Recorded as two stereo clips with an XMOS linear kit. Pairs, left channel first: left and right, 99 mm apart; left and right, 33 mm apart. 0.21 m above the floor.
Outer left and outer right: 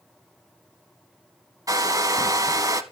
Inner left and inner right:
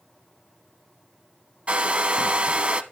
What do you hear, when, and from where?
1.7 s a hair dryer: 40° right (ahead or behind), 0.6 m